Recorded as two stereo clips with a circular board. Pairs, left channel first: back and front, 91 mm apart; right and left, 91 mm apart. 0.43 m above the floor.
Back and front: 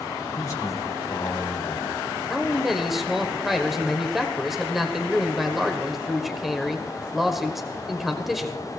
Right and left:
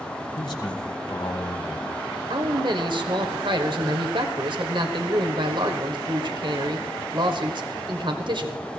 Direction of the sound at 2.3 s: 90° left.